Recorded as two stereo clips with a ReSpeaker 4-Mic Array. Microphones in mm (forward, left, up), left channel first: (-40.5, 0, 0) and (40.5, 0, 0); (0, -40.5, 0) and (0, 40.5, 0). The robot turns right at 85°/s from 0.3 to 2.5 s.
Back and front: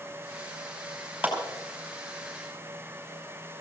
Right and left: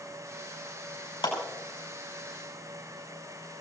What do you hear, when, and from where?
1.2 s a clap: 70° right, 5.5 m; by 1.4 s 60° right, 5.5 m